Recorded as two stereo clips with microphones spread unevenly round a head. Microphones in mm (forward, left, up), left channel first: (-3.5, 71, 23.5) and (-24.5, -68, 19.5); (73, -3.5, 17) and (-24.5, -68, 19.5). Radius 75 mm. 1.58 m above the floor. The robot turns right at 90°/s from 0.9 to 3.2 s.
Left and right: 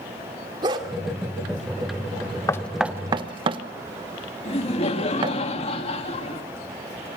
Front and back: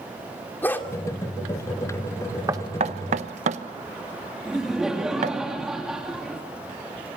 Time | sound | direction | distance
0.6 | a dog barking | 40° right | 2 m
2.5 | knocking | 145° left | 0.9 m
4.5 | laughter | 125° left | 2.5 m